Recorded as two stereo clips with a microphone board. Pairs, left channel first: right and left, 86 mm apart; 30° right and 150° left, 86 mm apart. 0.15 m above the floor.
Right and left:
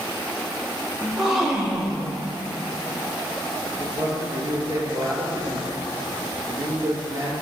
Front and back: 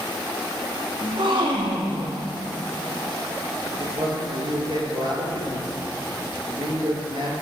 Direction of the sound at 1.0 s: 175° left.